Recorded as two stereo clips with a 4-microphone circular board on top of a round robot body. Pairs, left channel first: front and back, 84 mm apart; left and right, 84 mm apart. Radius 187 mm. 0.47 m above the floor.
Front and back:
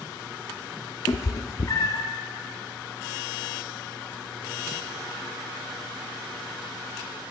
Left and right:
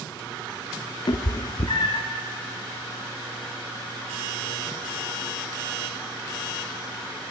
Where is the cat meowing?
55° left, 0.5 m.